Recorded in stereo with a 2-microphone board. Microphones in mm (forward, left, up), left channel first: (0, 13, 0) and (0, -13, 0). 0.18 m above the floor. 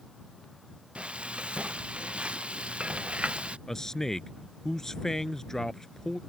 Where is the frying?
60° right (ahead or behind).